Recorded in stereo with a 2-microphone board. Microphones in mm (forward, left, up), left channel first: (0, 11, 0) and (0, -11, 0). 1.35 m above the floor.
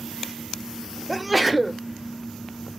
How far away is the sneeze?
About 0.7 m.